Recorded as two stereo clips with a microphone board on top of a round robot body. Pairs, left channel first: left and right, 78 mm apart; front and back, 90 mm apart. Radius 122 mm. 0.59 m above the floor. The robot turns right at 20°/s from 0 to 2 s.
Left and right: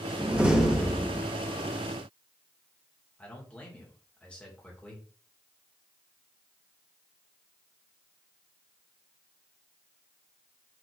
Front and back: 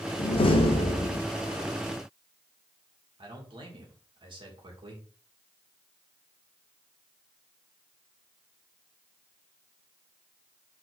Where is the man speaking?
165° left, 3 m.